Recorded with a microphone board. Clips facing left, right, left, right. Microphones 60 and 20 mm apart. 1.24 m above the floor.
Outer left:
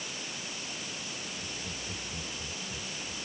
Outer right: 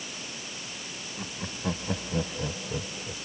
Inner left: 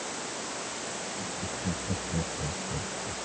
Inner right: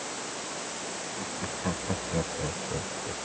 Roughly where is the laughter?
Right.